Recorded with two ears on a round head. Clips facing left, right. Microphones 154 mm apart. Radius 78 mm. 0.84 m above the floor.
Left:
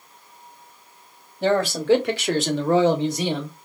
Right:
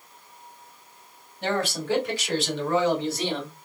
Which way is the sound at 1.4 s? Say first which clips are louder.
Left 7 dB; 75° left (ahead or behind).